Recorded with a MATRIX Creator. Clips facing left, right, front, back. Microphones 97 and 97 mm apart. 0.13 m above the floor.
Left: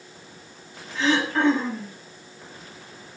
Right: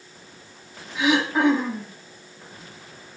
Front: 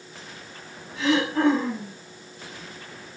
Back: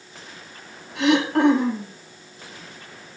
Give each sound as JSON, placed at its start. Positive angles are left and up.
{"t": 0.9, "sound": "throat clearing", "azimuth_deg": -170, "distance_m": 6.0}